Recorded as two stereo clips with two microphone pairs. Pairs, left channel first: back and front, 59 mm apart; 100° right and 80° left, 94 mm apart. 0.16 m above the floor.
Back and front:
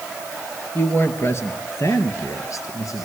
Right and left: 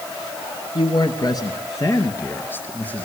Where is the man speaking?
135° right, 2.5 m; by 3.1 s 175° right, 3 m.